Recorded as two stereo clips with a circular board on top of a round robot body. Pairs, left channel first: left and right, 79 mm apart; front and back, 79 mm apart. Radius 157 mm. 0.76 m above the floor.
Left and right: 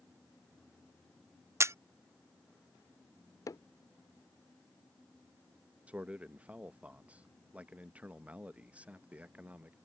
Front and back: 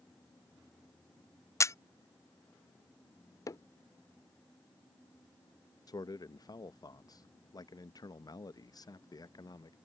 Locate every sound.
1.6 s a camera shutter: 40° right
3.5 s hammering: 45° left
5.9 s a man speaking: 20° right